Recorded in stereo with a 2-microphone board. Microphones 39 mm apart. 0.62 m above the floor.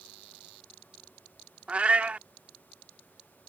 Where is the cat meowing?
35° right (ahead or behind).